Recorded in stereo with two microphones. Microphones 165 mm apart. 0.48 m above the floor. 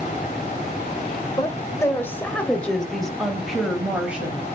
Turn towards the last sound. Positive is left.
turn(degrees=-10)  # may be behind; listen again after turning